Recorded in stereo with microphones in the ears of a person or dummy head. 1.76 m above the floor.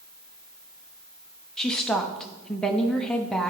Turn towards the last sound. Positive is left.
turn(degrees=10)  # may be behind; listen again after turning